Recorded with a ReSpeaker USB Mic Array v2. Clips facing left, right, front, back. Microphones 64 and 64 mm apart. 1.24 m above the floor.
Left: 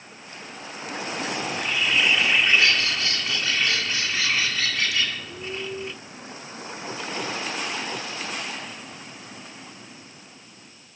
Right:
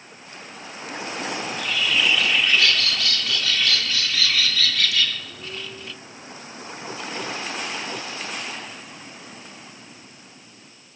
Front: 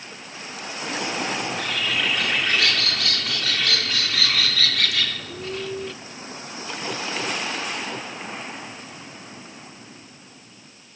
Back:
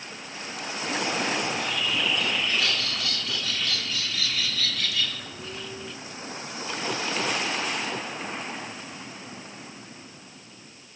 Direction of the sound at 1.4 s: 25° left.